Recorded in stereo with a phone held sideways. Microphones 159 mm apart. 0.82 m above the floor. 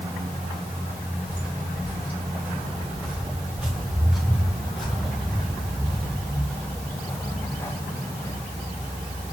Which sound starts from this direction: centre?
Footsteps, at 1.3 s.